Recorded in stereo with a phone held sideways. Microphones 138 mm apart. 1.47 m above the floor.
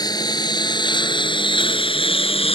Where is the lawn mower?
30° left (ahead or behind); by 2.6 s 45° left (ahead or behind).